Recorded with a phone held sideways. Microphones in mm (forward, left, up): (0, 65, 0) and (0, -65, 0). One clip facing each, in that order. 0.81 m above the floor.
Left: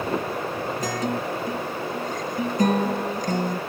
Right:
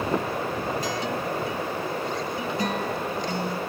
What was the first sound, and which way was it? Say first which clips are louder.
A guitar: left 2 dB; 45° left (ahead or behind).